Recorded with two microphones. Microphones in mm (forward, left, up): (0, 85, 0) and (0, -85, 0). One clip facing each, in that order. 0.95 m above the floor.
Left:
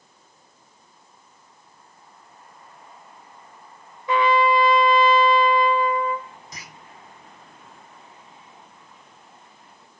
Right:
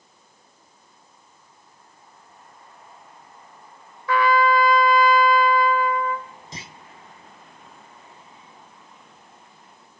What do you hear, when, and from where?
4.1 s a trumpet: 20° left (ahead or behind), 1.6 m
6.5 s a clunk: 30° right (ahead or behind), 0.7 m